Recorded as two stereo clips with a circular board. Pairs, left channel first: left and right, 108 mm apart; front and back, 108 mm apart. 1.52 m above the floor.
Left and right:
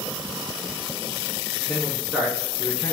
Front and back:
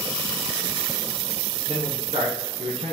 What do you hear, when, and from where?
1.7 s a man speaking: 165° right, 2.0 m